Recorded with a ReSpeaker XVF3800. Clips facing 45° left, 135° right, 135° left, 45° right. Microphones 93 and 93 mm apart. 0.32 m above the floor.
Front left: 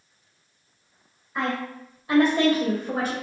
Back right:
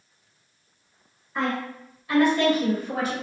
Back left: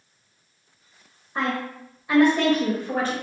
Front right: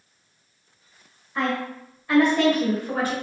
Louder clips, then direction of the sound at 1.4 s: Back right 1 dB, front right 1 dB; 130° left.